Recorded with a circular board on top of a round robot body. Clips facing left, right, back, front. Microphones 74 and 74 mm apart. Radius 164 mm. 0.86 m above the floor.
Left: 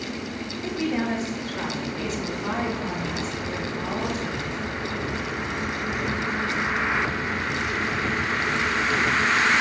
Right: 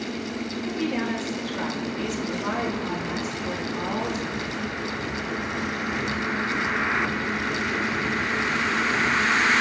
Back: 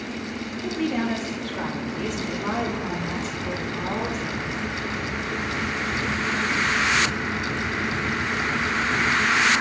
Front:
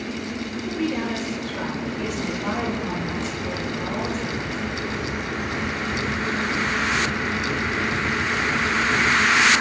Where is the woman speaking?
160° left, 2.5 m; by 4.6 s 160° right, 4 m.